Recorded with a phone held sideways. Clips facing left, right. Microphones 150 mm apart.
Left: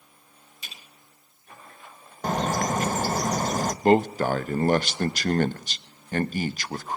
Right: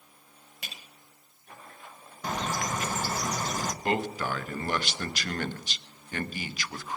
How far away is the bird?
About 0.6 m.